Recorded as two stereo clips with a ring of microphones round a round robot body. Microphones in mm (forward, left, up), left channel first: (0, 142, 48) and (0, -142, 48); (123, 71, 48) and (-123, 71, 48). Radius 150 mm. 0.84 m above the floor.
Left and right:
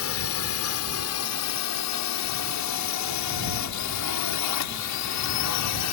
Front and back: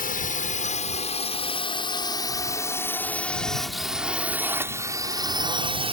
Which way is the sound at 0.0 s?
55° left.